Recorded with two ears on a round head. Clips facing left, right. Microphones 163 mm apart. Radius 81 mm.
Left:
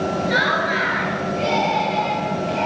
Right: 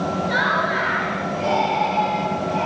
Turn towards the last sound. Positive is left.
turn(degrees=45)  # may be behind; listen again after turning